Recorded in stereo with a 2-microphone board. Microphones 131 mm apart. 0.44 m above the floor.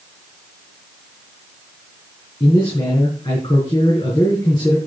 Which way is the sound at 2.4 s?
40° left (ahead or behind).